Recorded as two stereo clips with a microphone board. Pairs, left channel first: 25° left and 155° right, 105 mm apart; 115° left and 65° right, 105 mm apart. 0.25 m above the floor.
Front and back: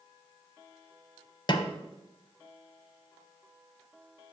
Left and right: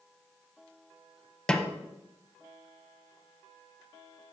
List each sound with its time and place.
1.5 s a snare drum: 35° left, 0.6 m